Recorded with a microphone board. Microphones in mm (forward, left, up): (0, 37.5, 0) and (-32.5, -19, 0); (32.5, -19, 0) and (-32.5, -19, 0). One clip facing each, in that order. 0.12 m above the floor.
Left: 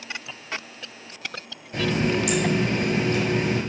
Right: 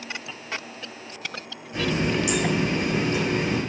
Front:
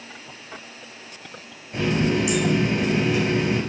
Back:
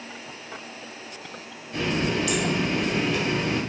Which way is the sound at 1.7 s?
65° left.